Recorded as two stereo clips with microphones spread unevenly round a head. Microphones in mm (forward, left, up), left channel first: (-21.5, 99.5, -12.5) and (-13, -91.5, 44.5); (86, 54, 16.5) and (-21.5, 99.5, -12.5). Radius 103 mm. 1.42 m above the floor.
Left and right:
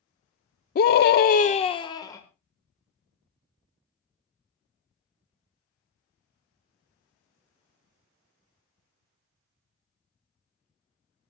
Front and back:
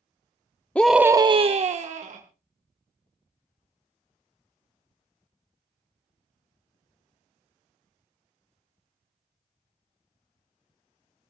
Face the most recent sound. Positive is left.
turn(degrees=165)